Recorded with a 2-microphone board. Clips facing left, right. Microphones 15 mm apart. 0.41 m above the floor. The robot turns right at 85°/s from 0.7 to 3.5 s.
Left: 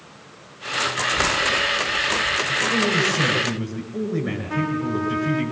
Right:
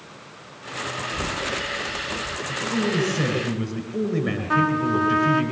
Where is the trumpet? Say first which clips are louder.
Right 5 dB; 75° right (ahead or behind), 3.5 m.